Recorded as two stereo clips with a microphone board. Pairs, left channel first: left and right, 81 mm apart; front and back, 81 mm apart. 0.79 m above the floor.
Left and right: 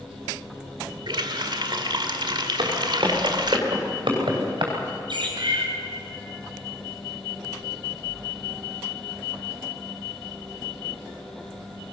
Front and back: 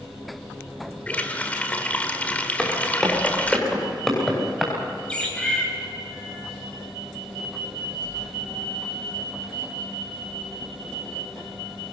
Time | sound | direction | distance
1.1 | a running tap | 70° right | 1.5 m
2.6 | footsteps | 80° right | 9 m
5.1 | a bird | 75° right | 4.5 m